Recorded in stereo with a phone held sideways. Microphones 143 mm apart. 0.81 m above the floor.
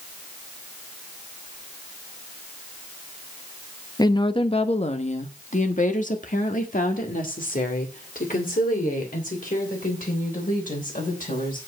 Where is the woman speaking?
30° left (ahead or behind), 0.9 m; by 11.6 s 75° left (ahead or behind), 4 m.